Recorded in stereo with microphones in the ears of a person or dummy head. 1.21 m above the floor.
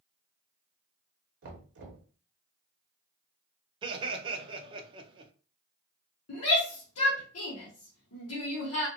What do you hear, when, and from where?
1.4 s knocking: 50° right (ahead or behind), 0.6 m
3.8 s laughter: 25° right (ahead or behind), 0.6 m
6.3 s a shout: 80° left, 0.9 m